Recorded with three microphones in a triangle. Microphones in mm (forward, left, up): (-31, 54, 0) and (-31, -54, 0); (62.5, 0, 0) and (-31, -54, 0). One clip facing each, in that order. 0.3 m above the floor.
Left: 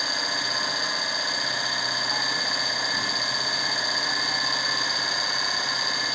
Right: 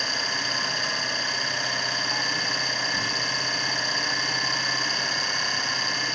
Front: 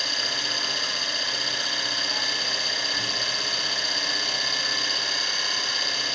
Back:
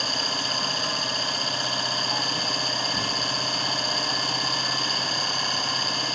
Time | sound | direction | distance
0.0 | an engine running | 170° left | 2.5 m